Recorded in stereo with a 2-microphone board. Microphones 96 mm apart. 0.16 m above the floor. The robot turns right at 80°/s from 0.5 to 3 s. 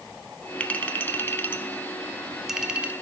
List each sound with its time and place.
0.6 s a clink: 15° left (ahead or behind), 0.6 m; by 2.9 s 15° right (ahead or behind), 0.6 m